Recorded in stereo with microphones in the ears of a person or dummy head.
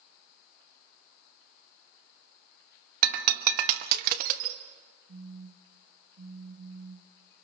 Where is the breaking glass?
50° right (ahead or behind), 1.0 m.